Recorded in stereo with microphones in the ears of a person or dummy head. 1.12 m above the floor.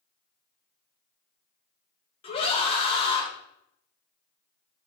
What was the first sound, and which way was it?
A scream, 30° left (ahead or behind).